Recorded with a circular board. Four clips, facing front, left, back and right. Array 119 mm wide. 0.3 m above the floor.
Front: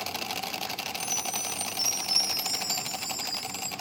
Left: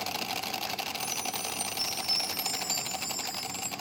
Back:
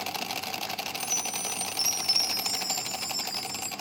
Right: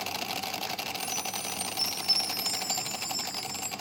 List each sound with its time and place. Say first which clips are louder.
1.0 s a chime: even, front 1 dB; straight ahead, 1.3 m